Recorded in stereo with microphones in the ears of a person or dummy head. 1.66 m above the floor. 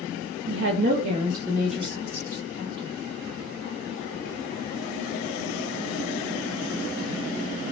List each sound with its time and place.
0.5 s a woman speaking: 80° right, 0.6 m; by 2.9 s 25° left (ahead or behind), 1.4 m